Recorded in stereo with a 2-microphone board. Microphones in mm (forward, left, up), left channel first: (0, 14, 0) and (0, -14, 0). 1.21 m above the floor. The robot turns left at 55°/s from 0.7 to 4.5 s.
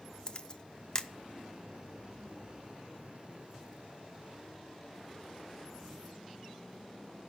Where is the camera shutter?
35° left (ahead or behind), 0.7 m; by 1.1 s 20° left (ahead or behind), 0.7 m.